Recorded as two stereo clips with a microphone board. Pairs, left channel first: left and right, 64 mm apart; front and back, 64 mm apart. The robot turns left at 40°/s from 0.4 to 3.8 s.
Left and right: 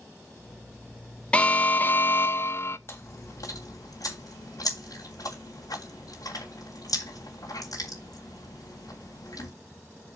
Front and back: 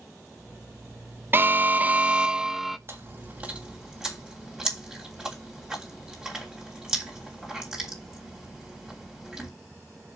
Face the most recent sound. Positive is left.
turn(degrees=100)